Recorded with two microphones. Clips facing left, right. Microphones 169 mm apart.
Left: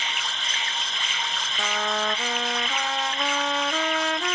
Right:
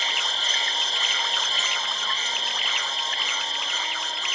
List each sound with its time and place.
0.0 s an insect: 35° right (ahead or behind)
1.6 s a trumpet: 85° left